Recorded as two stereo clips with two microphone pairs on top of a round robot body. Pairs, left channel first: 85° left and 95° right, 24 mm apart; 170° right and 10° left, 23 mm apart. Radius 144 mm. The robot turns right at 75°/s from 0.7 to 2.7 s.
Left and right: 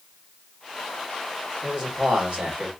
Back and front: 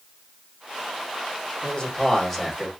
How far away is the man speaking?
About 1.9 m.